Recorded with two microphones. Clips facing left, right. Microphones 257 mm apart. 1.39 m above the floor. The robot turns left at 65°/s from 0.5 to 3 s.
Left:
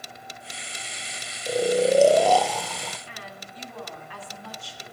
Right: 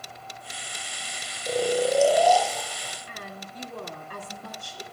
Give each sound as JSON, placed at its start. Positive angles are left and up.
{"t": 1.5, "sound": "snoring", "azimuth_deg": 175, "distance_m": 0.7}
{"t": 3.1, "sound": "a woman speaking", "side_deg": -45, "distance_m": 3.5}